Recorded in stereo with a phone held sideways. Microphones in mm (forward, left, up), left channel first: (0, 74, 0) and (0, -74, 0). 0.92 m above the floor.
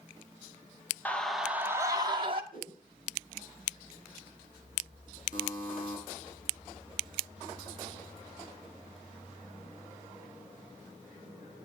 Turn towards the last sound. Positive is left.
turn(degrees=60)  # may be behind; listen again after turning